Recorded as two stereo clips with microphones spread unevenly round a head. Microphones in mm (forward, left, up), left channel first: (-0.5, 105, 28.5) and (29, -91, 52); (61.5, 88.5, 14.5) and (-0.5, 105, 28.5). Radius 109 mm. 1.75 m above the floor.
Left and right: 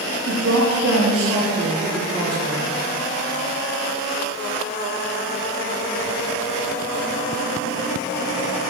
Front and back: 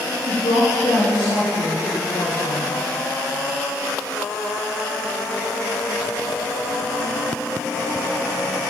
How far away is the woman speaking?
About 1.2 m.